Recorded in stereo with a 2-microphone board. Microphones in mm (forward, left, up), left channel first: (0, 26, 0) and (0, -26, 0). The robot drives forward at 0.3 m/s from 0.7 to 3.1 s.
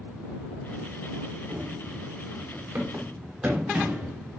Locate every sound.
1.5 s running footsteps: 45° right (ahead or behind), 4 m; by 4.2 s centre (ahead or behind), 4 m